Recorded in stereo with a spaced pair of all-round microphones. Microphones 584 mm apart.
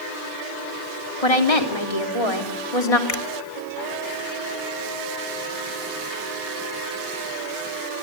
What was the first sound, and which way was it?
A woman speaking, 75° left (ahead or behind).